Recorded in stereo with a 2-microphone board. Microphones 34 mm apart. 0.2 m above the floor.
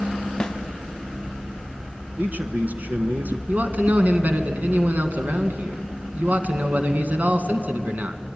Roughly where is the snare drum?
Left.